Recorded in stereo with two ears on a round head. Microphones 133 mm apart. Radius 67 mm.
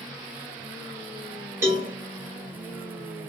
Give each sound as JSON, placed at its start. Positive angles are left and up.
{"t": 1.6, "sound": "a cowbell", "side_deg": -15, "distance_m": 0.8}